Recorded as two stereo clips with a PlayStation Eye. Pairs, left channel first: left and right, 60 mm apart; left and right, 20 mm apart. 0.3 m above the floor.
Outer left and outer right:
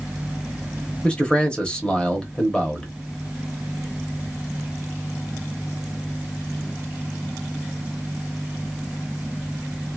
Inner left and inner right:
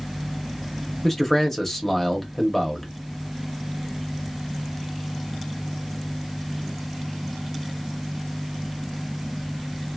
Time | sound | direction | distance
1.0 | a man speaking | 15° left (ahead or behind) | 0.9 m